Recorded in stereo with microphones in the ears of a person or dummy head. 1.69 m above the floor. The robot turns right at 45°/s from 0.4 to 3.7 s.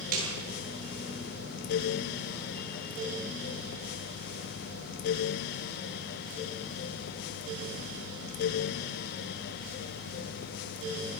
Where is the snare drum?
55° right (ahead or behind), 9.5 m.